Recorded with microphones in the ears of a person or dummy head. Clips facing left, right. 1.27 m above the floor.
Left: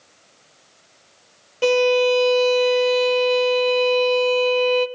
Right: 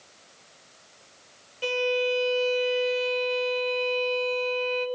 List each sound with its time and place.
1.6 s a violin: 65° left (ahead or behind), 1.1 m